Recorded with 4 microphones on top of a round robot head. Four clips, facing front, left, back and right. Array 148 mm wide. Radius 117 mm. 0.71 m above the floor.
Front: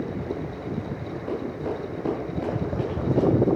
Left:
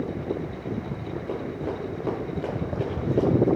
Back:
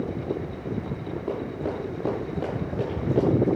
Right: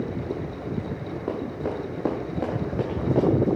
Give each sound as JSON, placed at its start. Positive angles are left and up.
{"t": 1.3, "sound": "running footsteps", "azimuth_deg": -120, "distance_m": 5.0}